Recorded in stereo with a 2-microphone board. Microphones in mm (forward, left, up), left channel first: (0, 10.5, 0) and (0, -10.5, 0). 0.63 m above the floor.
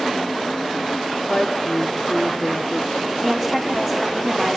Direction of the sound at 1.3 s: 45° left (ahead or behind).